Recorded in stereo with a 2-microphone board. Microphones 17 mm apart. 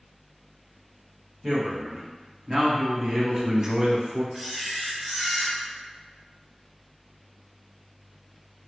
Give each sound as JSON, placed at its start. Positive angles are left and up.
{"t": 1.4, "sound": "a man speaking", "side_deg": 0, "distance_m": 1.7}
{"t": 4.3, "sound": "a camera shutter", "side_deg": -10, "distance_m": 0.7}